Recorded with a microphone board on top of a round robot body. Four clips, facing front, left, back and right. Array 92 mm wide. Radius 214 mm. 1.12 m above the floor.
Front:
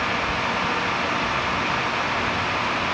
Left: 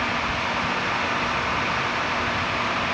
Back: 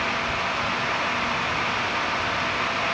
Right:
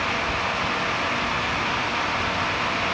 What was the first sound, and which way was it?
Only background noise.